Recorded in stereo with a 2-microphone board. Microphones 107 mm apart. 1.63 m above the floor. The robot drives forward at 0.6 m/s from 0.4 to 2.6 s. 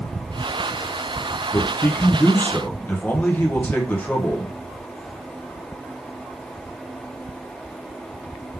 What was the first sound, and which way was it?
A man speaking, 30° left (ahead or behind).